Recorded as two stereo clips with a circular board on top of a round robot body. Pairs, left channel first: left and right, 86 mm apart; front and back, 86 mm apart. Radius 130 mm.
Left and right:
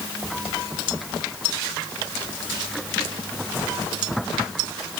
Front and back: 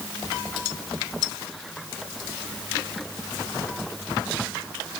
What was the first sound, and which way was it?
Only background noise.